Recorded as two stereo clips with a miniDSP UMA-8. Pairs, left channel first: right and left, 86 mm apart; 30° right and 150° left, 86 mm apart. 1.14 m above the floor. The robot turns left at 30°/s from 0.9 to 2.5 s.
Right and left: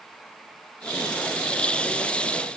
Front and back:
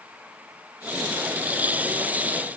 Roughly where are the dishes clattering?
No dishes clattering in this recording.